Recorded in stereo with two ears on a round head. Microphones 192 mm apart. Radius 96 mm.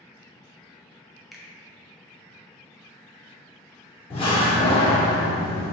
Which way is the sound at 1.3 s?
Centre (ahead or behind).